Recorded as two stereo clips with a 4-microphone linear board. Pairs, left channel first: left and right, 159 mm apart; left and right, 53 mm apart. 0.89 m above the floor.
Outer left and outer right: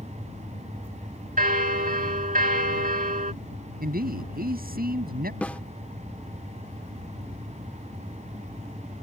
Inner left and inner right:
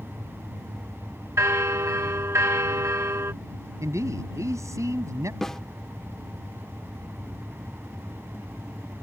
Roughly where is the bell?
Right.